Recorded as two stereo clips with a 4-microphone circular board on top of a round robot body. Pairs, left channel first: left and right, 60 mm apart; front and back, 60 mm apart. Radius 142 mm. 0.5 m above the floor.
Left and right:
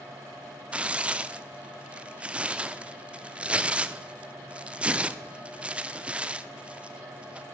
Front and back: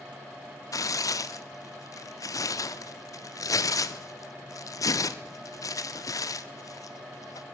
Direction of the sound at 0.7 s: 20° right.